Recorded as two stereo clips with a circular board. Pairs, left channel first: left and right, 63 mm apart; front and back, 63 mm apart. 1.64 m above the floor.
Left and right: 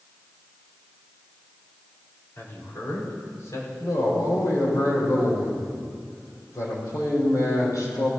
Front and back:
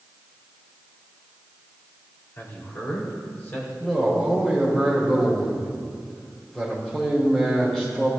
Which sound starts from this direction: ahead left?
A man speaking, at 2.4 s.